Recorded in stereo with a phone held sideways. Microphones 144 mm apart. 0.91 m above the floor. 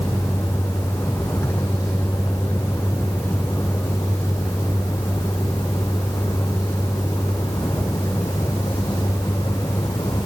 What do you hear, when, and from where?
0.0 s a vehicle: 15° left (ahead or behind); by 10.2 s 25° left (ahead or behind)